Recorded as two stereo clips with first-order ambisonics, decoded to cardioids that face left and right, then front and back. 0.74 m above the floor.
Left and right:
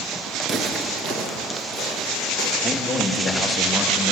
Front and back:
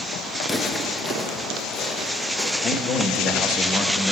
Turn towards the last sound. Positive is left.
turn(degrees=25)